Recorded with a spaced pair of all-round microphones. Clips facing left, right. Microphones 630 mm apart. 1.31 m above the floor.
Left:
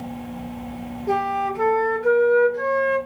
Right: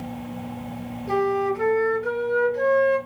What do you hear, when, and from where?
1.1 s a flute: 65° left (ahead or behind), 1.8 m